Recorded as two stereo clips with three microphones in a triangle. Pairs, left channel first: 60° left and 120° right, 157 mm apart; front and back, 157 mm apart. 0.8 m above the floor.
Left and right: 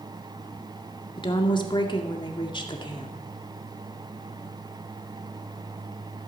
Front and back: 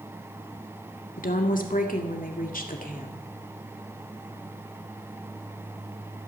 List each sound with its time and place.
1.2 s a woman speaking: 5° left, 2 m